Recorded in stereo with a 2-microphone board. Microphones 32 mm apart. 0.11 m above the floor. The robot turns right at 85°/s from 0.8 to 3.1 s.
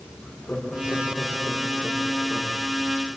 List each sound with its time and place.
0.2 s laughter: 130° left, 7 m; by 2.6 s 75° right, 7 m